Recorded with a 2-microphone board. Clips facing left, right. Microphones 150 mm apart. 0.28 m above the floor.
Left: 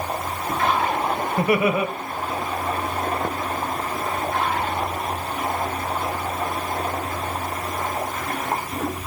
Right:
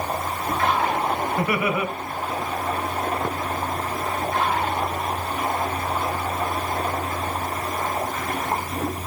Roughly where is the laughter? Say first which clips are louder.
Left 7 dB; left.